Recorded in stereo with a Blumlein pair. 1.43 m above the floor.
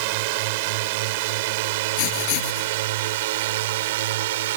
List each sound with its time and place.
0.0 s a drone: 45° right; by 4.6 s 55° right
2.0 s writing: 45° left